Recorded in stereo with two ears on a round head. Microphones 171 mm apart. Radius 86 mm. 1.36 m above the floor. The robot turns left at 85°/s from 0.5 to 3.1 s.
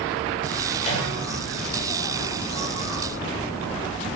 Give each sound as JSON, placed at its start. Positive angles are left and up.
{"t": 0.8, "sound": "a microwave", "side_deg": 30, "distance_m": 2.5}